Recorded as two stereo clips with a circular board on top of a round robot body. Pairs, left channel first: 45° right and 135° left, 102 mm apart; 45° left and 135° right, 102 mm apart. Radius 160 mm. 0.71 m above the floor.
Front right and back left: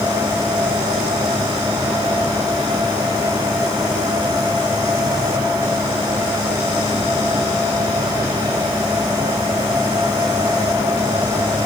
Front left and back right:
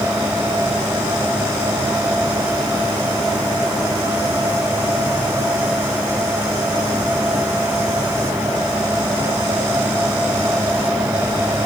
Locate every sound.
Only background noise.